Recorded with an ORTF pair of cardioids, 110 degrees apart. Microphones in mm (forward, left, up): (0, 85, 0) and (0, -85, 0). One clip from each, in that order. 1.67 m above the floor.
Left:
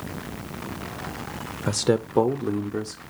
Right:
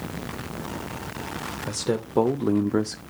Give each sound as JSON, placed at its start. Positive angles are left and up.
{"t": 1.7, "sound": "a man speaking", "azimuth_deg": 35, "distance_m": 0.6}